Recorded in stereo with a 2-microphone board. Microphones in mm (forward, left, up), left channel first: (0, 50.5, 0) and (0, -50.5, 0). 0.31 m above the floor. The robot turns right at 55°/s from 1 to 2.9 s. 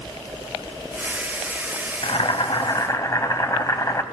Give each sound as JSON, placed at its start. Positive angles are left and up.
{"t": 2.0, "sound": "boiling", "azimuth_deg": 95, "distance_m": 0.6}